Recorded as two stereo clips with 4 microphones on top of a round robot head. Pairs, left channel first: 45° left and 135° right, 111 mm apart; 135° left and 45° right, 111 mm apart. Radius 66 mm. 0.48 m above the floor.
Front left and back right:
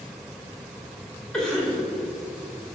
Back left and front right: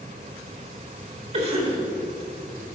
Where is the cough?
40° right, 2.5 m.